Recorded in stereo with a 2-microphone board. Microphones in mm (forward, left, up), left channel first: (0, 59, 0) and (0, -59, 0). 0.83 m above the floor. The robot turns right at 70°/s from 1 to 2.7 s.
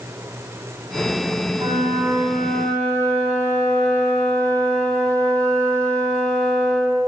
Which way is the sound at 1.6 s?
65° right.